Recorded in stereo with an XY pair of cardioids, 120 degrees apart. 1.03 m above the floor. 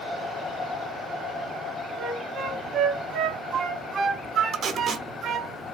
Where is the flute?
60° right, 2 m.